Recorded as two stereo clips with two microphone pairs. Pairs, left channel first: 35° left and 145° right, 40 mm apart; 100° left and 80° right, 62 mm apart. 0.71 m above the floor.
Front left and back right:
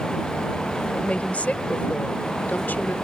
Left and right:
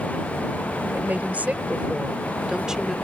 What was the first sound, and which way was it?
A woman speaking, 20° right.